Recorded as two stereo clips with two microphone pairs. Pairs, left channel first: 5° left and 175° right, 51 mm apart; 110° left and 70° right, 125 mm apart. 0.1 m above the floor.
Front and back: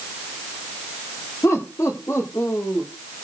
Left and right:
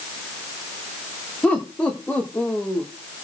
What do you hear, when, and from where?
1.4 s laughter: 30° left, 8.5 m; by 2.9 s 35° left, 7.5 m